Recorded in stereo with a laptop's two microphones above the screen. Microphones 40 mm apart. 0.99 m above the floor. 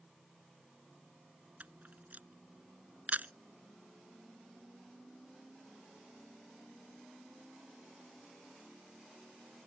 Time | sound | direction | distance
1.6 | a camera shutter | 35° right (ahead or behind) | ?